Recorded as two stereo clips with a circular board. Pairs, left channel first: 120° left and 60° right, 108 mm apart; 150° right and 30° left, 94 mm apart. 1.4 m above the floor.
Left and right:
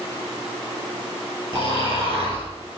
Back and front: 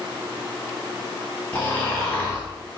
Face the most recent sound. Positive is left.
turn(degrees=-80)